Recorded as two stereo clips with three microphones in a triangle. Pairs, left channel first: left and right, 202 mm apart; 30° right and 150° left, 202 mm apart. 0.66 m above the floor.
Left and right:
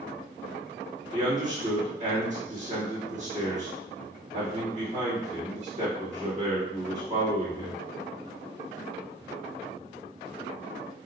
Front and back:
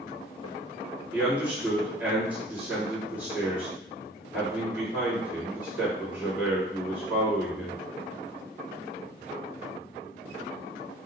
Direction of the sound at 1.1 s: 130° right.